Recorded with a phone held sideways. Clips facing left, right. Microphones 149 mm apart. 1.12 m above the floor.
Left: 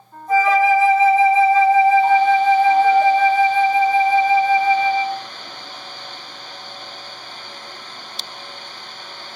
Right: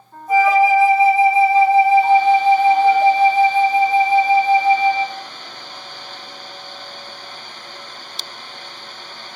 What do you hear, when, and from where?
0.3 s a flute: 10° right (ahead or behind), 0.7 m